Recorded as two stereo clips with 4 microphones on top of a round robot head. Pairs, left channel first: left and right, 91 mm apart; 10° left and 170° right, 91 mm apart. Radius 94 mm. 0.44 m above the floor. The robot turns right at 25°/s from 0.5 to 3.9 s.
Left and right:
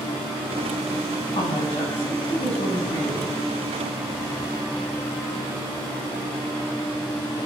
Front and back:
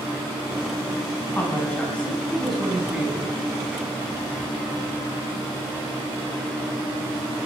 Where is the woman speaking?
70° left, 5 m; by 3.3 s 120° left, 5 m.